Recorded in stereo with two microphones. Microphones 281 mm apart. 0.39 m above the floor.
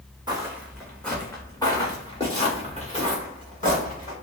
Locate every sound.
0.3 s footsteps: 15° right (ahead or behind), 0.9 m; by 4.1 s 30° left (ahead or behind), 2.5 m